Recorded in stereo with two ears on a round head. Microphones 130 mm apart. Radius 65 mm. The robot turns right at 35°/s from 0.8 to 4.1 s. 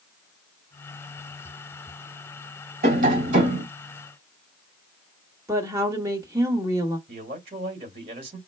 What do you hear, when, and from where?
2.8 s tapping: 65° right (ahead or behind), 3 m; by 3.6 s 45° right (ahead or behind), 3 m
5.5 s a woman speaking: 20° right (ahead or behind), 1.6 m
7.1 s a man speaking: 40° right (ahead or behind), 2.5 m